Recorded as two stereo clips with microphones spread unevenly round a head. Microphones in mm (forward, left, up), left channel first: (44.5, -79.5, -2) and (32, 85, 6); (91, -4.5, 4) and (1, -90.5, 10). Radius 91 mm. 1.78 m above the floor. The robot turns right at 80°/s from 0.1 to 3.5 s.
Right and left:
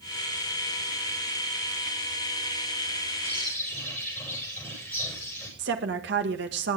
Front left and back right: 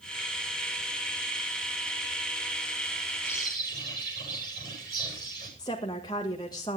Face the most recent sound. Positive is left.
turn(degrees=115)